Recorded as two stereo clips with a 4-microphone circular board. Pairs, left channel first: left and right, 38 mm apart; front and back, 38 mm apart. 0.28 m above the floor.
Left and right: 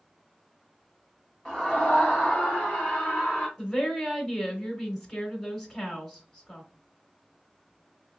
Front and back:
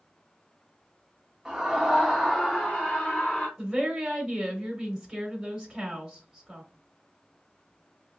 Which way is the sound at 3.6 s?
120° left.